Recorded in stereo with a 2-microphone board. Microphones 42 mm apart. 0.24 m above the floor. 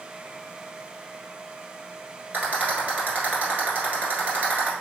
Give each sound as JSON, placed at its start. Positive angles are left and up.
{"t": 2.3, "sound": "a rattle", "side_deg": -35, "distance_m": 1.6}